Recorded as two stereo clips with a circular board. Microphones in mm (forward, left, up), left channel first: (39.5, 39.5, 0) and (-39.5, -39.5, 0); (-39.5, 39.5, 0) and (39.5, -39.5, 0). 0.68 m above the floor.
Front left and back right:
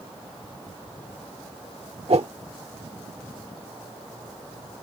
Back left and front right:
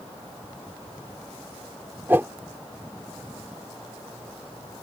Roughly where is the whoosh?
Behind right.